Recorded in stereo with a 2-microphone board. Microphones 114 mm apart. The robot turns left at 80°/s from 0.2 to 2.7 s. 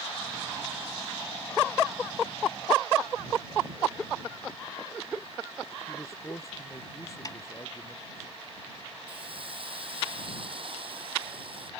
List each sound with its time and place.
5.9 s a man speaking: 30° left (ahead or behind)
7.2 s a snare drum: 35° left (ahead or behind)
9.1 s a hiss: 55° right (ahead or behind)